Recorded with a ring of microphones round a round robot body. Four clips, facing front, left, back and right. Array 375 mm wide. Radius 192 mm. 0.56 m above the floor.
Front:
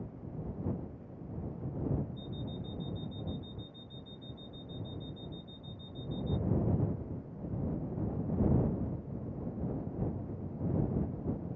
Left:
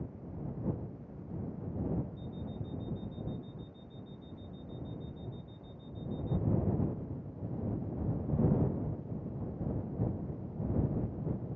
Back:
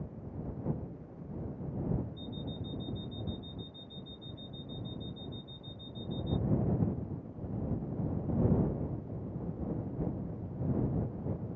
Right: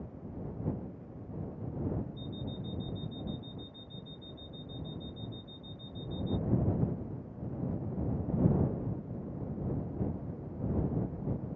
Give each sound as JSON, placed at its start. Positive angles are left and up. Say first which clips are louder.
{"t": 2.2, "sound": "an alarm clock", "louder": "right 2 dB, even", "azimuth_deg": -95}